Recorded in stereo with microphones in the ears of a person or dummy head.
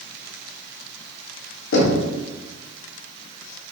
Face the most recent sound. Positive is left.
turn(degrees=75)  # may be behind; listen again after turning